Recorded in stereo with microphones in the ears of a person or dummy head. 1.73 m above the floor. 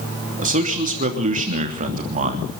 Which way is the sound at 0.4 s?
40° right (ahead or behind).